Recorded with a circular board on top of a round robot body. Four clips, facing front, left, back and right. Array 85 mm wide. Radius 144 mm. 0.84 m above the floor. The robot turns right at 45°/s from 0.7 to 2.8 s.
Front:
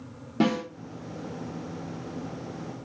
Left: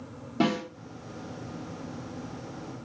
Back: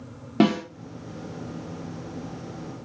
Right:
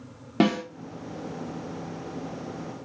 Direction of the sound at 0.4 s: 135° right.